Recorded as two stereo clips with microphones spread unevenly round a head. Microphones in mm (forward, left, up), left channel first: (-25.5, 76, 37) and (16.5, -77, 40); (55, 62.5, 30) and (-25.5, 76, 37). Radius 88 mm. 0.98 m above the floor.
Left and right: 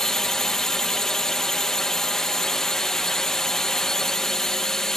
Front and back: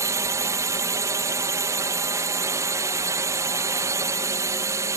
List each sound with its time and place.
0.0 s a drone: 170° right